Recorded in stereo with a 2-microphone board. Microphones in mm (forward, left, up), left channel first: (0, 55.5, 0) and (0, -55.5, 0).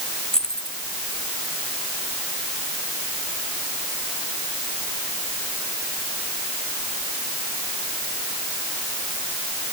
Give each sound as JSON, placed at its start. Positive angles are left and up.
{"t": 0.3, "sound": "keys jangling", "side_deg": 5}